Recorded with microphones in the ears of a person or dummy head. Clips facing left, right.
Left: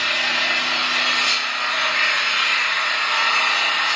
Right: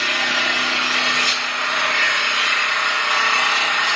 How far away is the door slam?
No door slam in this recording.